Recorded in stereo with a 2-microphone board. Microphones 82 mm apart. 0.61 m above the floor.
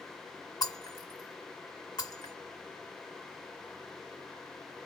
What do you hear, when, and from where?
0.6 s breaking glass: 50° left (ahead or behind), 1.2 m